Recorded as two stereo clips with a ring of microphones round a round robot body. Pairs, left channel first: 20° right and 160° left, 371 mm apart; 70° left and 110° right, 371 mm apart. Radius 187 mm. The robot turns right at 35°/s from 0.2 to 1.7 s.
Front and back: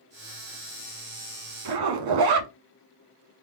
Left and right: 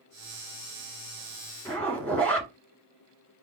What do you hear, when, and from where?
1.6 s a zipper: 150° left, 1.2 m; by 2.5 s 155° left, 1.2 m